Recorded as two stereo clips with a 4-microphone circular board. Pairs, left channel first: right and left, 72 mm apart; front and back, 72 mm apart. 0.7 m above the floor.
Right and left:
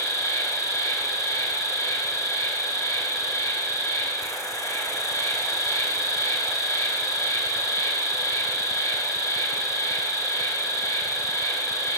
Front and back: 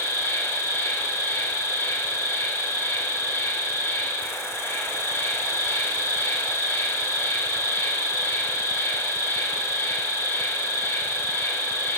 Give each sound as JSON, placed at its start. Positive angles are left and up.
{"t": 0.0, "sound": "an insect", "azimuth_deg": -55, "distance_m": 0.7}